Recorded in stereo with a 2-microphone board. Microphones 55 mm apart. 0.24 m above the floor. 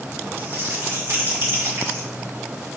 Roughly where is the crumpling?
Right.